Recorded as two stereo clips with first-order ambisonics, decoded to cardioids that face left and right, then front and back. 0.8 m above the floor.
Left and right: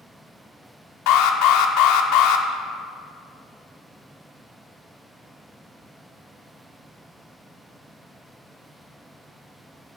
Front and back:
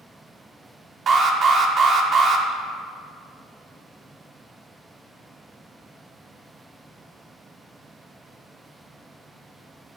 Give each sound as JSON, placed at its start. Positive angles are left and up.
{"t": 1.1, "sound": "an alarm", "azimuth_deg": 115, "distance_m": 0.9}